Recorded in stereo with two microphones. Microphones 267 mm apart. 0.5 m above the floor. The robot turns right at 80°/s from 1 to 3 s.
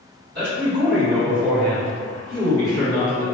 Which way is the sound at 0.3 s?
50° right.